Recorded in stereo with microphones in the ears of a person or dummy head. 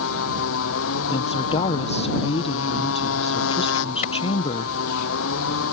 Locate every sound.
0.0 s a motorcycle: 75° left (ahead or behind)
1.1 s a woman speaking: 30° left (ahead or behind)
4.0 s a clap: 40° left (ahead or behind)